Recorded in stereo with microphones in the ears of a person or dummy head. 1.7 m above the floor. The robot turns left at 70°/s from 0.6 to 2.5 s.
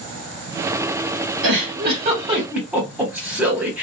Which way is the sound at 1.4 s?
75° right (ahead or behind).